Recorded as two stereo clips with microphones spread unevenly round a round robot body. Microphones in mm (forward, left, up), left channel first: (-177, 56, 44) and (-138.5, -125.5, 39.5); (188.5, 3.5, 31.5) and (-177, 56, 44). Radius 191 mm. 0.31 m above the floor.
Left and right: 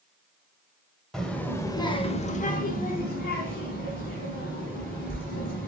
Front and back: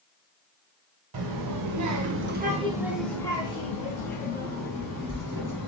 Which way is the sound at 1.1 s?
170° right.